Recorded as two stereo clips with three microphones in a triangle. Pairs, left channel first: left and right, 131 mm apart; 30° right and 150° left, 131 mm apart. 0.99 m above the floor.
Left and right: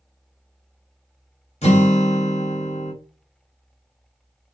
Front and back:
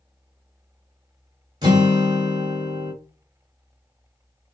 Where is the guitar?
105° left, 1.0 m.